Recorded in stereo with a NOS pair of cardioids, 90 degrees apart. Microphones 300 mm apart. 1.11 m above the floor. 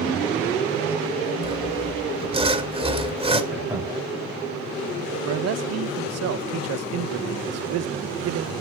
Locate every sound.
1.4 s sawing: 20° right, 2 m
3.5 s laughter: 10° right, 7.5 m
5.2 s a man speaking: 55° right, 0.7 m